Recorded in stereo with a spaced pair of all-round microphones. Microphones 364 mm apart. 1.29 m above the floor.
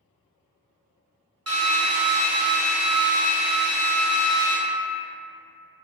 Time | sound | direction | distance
1.5 | a drill | 45° right (ahead or behind) | 0.8 m